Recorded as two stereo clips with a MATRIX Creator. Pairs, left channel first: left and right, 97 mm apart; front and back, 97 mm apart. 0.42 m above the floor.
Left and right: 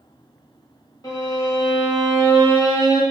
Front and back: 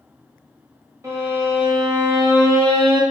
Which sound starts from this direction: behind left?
A violin, at 1.0 s.